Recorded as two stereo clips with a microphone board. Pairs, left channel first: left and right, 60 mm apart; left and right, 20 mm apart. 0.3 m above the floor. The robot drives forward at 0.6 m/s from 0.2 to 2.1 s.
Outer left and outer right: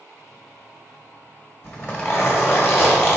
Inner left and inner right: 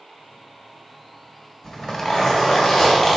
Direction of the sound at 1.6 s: 25° left (ahead or behind).